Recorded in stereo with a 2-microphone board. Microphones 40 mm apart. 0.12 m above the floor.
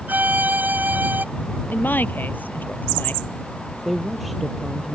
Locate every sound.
0.1 s a violin: 50° right (ahead or behind)
1.7 s a woman speaking: 55° left (ahead or behind)
3.9 s a woman speaking: centre (ahead or behind)